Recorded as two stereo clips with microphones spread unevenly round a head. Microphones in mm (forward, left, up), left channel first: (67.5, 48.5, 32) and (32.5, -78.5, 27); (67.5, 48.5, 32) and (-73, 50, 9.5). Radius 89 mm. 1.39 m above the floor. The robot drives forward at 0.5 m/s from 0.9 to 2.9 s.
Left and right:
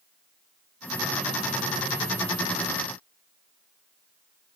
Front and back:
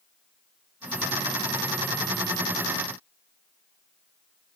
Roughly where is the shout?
No shout in this recording.